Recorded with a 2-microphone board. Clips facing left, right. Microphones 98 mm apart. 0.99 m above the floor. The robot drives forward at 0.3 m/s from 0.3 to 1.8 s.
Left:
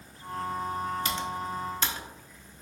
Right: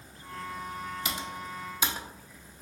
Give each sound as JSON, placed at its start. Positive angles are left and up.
{"t": 1.1, "sound": "typing on a keyboard", "side_deg": -10, "distance_m": 0.5}